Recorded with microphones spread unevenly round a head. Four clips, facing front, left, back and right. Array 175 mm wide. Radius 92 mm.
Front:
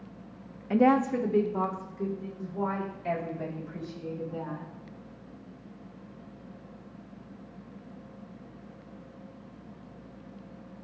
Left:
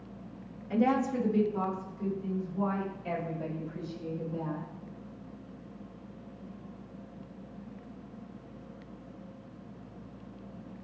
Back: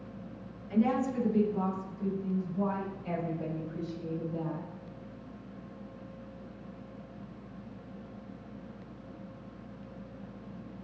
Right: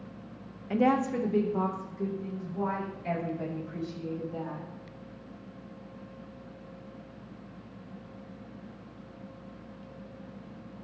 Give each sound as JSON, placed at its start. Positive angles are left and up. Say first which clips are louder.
{"t": 0.7, "sound": "a woman speaking", "louder": "right 2 dB, front 6 dB", "azimuth_deg": -25, "distance_m": 0.6}